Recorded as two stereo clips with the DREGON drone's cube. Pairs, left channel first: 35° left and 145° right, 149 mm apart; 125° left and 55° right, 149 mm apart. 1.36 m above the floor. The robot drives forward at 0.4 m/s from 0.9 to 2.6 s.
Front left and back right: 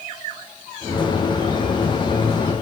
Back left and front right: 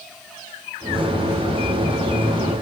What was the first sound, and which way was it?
Only background noise.